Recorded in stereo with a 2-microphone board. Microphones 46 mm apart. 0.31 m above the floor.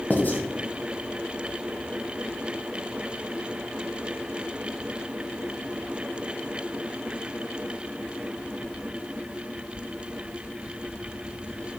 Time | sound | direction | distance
0.1 | writing | 45° left (ahead or behind) | 0.7 m